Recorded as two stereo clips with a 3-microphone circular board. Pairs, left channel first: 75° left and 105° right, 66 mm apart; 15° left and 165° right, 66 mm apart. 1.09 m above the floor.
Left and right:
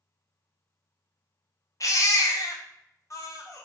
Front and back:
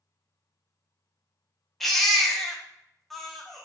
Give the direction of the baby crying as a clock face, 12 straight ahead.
9 o'clock.